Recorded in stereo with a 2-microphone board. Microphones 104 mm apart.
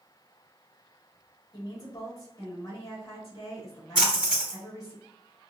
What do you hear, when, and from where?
1.5 s a woman speaking: 35° left (ahead or behind), 1.3 m
4.0 s a splash: 10° right (ahead or behind), 1.6 m